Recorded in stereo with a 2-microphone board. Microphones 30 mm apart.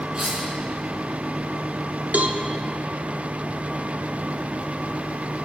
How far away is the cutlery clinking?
About 6 m.